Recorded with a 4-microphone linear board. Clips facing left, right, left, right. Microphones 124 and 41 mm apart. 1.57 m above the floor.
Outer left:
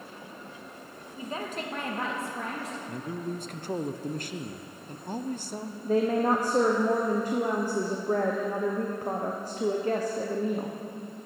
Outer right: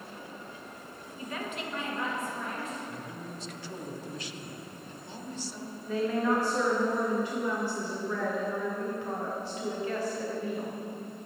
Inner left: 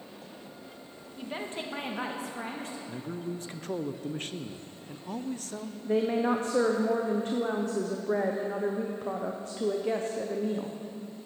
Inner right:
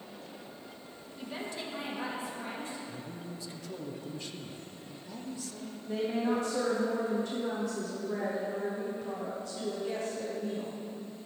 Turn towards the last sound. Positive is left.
turn(degrees=40)  # may be behind; listen again after turning